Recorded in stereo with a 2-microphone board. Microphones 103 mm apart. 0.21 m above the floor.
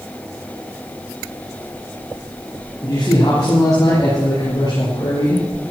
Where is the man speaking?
35° left (ahead or behind), 6.5 m; by 5.5 s 45° left (ahead or behind), 5.5 m.